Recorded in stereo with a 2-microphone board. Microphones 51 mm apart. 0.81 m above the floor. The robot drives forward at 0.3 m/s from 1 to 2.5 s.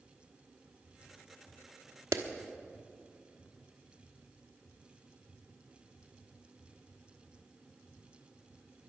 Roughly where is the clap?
Right.